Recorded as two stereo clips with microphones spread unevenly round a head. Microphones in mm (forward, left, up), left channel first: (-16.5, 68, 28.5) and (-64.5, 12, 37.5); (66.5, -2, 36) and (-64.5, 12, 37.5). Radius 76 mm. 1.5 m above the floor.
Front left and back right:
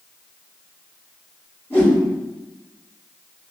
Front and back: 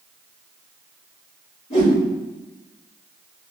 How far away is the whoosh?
About 1.6 m.